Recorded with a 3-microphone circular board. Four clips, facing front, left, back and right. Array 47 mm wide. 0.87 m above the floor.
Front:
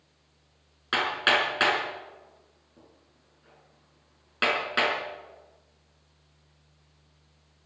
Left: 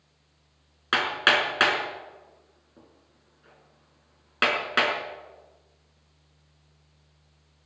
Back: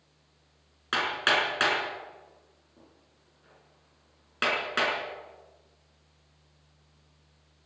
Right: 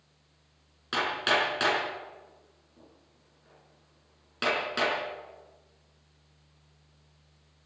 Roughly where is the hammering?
Left.